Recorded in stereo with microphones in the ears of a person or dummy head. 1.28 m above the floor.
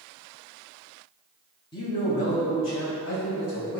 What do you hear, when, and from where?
1.7 s a man speaking: 25° left (ahead or behind), 0.8 m; by 3.8 s 75° left (ahead or behind), 1.9 m